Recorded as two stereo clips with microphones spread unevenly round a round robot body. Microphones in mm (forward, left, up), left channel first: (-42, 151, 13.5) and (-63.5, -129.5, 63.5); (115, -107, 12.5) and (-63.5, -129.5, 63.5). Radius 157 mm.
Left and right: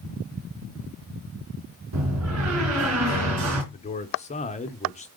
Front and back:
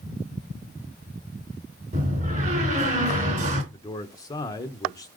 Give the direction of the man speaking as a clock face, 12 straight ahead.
10 o'clock.